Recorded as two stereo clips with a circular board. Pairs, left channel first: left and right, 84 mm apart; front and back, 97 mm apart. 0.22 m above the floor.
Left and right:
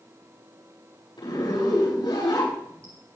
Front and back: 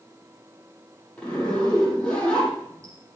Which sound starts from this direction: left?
A zipper, at 1.2 s.